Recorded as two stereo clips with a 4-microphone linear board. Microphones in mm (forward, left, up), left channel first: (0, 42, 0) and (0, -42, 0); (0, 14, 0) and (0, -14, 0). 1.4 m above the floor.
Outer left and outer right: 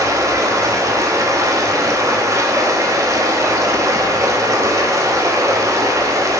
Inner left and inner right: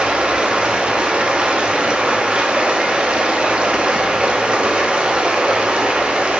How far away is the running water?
About 1.0 m.